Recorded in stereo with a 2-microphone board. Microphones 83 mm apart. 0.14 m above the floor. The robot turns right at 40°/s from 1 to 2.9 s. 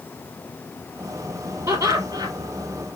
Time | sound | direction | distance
1.7 | laughter | 40° right (ahead or behind) | 3 m